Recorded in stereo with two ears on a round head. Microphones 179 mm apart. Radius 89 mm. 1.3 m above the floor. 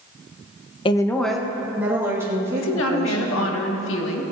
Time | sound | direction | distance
0.8 | a woman speaking | 25° left (ahead or behind) | 0.6 m
2.5 | a woman speaking | 70° left (ahead or behind) | 1.6 m